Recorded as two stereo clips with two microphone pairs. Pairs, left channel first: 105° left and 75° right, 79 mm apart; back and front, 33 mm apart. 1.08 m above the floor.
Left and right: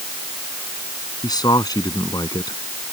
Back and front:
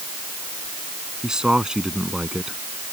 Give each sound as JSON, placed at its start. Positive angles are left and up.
{"t": 1.2, "sound": "a man speaking", "azimuth_deg": 70}